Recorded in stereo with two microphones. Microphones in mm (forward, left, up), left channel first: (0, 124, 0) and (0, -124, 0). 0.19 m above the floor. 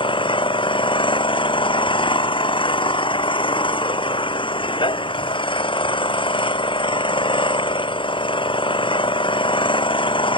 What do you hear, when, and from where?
0.0 s an engine running: 20° left (ahead or behind)